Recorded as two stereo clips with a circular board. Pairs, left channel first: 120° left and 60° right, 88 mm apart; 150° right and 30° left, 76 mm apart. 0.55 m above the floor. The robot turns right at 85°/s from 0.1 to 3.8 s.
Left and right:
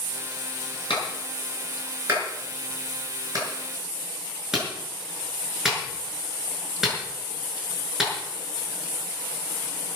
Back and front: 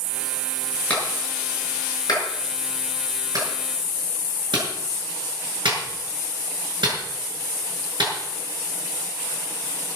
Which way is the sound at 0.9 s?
140° left.